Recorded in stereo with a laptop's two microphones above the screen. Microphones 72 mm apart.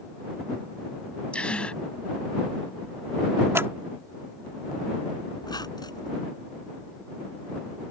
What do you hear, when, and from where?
1.3 s a gasp: 15° left (ahead or behind)
3.5 s scissors: 35° right (ahead or behind)
5.4 s a squeak: 75° left (ahead or behind)